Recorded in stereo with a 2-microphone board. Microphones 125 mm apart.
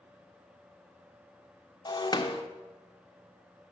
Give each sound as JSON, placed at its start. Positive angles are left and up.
{"t": 1.9, "sound": "breaking glass", "side_deg": 30, "distance_m": 0.7}